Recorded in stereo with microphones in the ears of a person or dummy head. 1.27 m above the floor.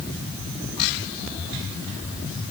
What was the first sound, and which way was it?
Only background noise.